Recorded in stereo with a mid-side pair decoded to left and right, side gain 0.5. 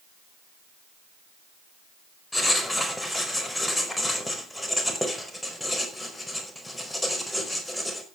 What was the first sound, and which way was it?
Writing, 10° left.